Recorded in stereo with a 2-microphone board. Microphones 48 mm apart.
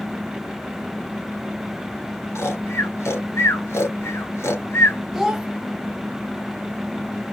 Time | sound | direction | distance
2.4 | snoring | 80° left | 1.3 m
5.1 | a child speaking | 5° right (ahead or behind) | 0.5 m